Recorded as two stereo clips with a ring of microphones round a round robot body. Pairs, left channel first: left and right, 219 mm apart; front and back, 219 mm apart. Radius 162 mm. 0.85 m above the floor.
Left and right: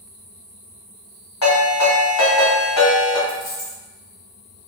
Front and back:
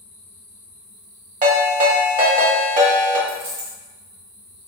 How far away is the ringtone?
About 0.8 m.